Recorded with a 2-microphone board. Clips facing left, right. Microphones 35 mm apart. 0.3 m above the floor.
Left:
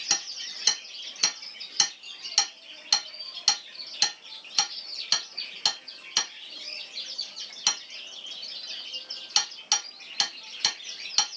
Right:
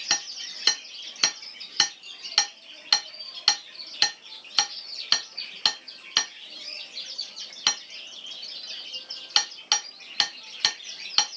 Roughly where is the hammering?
Right.